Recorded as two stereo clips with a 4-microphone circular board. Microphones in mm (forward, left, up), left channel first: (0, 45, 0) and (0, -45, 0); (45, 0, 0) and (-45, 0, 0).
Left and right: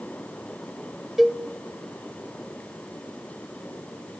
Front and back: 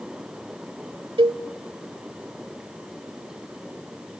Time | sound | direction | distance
1.2 | a cowbell | 175° right | 0.7 m